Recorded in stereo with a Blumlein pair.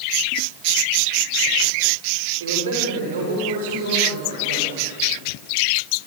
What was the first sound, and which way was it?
A man speaking, 60° right.